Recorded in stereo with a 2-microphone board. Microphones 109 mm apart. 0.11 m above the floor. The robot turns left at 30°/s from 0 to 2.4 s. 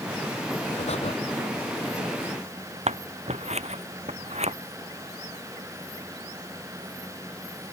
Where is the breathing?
75° left (ahead or behind); by 1.1 s 70° left (ahead or behind).